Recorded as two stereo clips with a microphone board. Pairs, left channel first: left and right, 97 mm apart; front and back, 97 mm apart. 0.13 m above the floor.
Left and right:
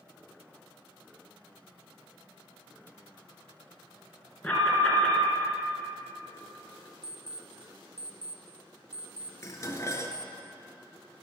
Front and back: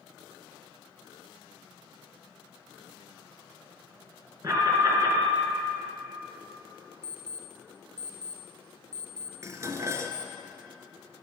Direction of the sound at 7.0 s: 135° left.